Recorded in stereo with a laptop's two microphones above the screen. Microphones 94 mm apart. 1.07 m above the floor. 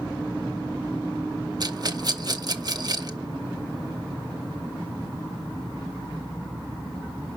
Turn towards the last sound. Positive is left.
turn(degrees=-45)  # may be behind; listen again after turning